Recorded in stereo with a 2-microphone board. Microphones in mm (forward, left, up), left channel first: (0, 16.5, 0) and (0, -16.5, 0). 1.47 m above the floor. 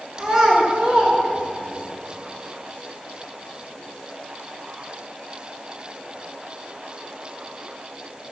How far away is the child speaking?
About 1.7 m.